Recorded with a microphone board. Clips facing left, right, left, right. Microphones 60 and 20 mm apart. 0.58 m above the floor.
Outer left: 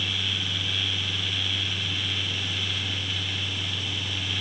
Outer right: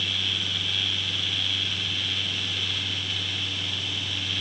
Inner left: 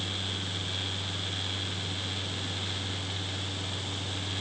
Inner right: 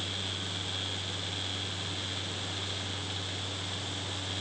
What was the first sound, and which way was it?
Only background noise.